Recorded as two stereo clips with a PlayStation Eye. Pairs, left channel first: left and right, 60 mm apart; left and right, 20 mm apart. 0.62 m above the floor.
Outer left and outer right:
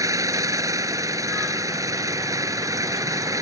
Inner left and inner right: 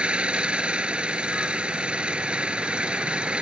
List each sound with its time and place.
0.0 s an engine running: 70° right (ahead or behind)